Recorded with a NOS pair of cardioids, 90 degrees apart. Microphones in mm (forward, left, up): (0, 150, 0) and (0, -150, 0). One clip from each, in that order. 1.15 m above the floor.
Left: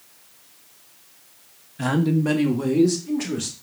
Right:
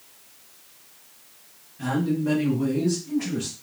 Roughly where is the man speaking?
Ahead left.